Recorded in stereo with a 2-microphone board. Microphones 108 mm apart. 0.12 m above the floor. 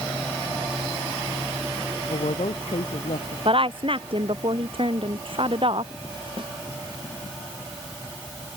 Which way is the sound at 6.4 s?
45° right (ahead or behind).